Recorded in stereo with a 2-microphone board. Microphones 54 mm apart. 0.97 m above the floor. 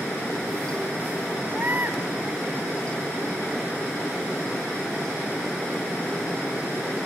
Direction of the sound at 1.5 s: 40° right (ahead or behind).